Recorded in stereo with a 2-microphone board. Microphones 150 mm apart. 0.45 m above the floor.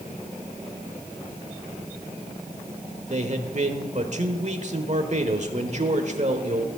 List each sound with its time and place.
3.1 s a man speaking: 50° right (ahead or behind), 1.2 m